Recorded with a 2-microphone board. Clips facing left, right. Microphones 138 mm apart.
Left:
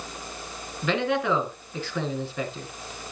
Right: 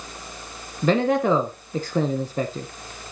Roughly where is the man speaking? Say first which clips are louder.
Right 5 dB; right.